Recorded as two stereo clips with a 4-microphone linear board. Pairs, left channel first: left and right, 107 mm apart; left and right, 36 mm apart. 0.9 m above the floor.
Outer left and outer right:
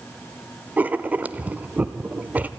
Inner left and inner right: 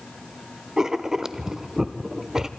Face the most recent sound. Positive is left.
turn(degrees=-15)  # may be behind; listen again after turning